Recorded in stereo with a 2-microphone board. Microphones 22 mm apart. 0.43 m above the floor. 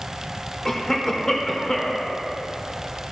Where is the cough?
25° left (ahead or behind), 1.1 m.